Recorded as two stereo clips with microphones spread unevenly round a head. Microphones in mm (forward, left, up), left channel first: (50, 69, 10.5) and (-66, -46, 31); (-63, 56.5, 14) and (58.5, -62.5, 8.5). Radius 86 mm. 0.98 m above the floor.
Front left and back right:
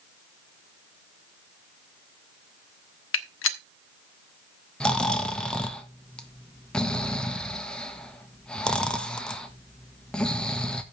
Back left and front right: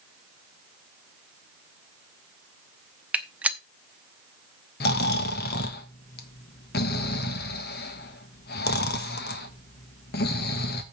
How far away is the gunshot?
About 0.9 m.